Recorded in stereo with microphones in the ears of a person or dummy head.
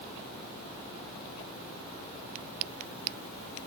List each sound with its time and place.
Only background noise.